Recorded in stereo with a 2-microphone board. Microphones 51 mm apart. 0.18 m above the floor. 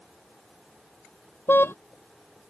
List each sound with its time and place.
1.5 s a car horn: 50° left (ahead or behind)